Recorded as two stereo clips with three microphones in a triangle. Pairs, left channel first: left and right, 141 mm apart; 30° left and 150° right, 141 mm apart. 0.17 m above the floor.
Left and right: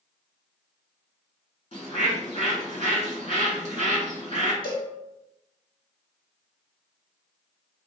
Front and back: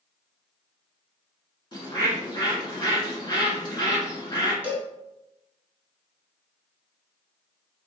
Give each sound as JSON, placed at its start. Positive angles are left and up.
{"t": 1.7, "sound": "a bird", "azimuth_deg": 75, "distance_m": 1.3}
{"t": 4.6, "sound": "a cowbell", "azimuth_deg": 135, "distance_m": 1.0}